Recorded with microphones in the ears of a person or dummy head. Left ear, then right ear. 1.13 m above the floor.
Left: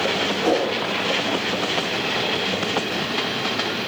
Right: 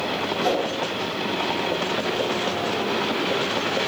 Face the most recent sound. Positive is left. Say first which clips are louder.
# left 2 dB
turn(degrees=-75)  # may be behind; listen again after turning